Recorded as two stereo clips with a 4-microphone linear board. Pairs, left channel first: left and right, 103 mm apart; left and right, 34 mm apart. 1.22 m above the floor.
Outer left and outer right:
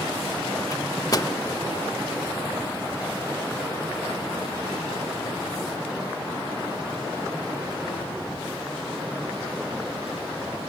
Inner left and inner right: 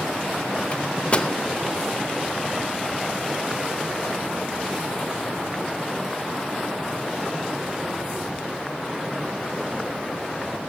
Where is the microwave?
35° left (ahead or behind), 0.7 m.